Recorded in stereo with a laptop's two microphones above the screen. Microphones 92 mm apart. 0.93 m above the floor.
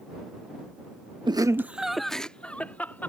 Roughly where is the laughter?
Right.